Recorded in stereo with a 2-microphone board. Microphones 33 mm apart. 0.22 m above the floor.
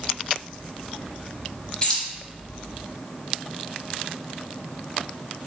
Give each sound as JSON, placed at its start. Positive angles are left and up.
{"t": 1.8, "sound": "keys jangling", "side_deg": 25, "distance_m": 1.1}